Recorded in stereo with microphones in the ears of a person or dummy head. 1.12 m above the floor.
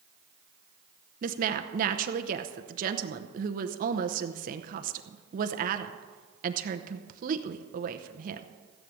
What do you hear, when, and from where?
1.2 s a woman speaking: 45° right (ahead or behind), 0.9 m